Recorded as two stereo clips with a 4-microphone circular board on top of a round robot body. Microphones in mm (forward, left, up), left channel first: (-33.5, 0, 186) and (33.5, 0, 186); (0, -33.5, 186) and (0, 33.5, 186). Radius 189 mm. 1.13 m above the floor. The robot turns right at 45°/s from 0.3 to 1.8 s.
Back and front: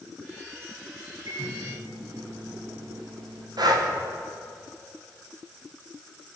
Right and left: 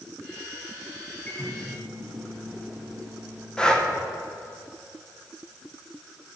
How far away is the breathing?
About 1.5 m.